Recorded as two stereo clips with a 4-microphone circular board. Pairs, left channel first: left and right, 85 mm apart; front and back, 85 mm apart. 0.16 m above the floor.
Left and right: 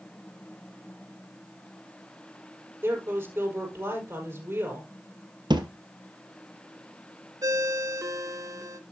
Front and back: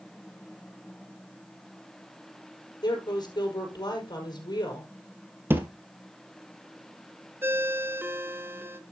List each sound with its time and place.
2.8 s a woman speaking: 25° right, 5.5 m
5.5 s a thud: 115° right, 1.5 m
7.4 s a ringtone: 125° right, 1.0 m